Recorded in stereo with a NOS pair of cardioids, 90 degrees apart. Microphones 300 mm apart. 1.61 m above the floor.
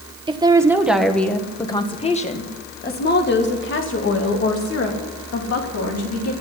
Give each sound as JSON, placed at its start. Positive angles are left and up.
{"t": 0.3, "sound": "a woman speaking", "azimuth_deg": -15, "distance_m": 1.7}